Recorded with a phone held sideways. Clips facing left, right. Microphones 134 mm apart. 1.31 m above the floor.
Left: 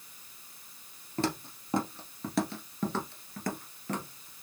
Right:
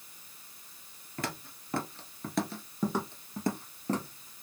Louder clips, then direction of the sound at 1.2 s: Left 6 dB; 30° left (ahead or behind).